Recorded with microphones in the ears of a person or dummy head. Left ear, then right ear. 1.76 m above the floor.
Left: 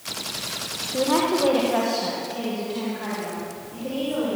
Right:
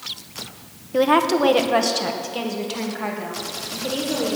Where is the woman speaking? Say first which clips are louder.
Right 5 dB; 70° right (ahead or behind), 1.1 m; by 4.4 s 65° right (ahead or behind), 3.5 m.